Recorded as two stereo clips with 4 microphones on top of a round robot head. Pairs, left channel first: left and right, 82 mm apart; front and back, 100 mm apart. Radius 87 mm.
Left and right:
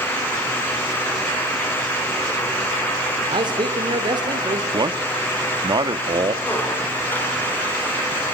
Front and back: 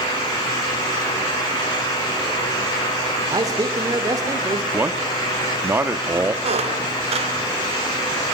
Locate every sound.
3.3 s a man speaking: 120° right, 3 m
4.7 s a man speaking: 110° right, 1.8 m
6.4 s a squeak: 165° left, 4 m